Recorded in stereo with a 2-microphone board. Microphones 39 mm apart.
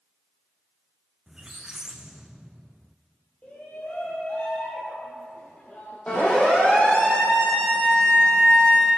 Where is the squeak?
15° right (ahead or behind), 0.7 m.